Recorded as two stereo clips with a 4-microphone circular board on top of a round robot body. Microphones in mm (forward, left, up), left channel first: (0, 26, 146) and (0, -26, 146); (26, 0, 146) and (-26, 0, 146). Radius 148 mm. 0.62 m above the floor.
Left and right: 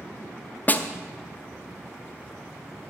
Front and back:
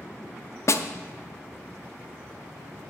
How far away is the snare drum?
About 0.7 m.